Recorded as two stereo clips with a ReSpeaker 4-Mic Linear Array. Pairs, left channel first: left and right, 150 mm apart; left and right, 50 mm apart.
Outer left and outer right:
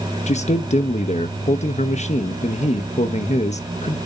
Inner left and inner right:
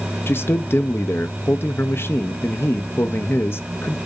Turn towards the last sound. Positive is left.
turn(degrees=50)  # may be behind; listen again after turning